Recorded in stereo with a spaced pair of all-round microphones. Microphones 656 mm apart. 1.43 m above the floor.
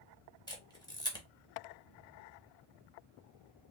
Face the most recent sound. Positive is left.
turn(degrees=5)  # may be behind; listen again after turning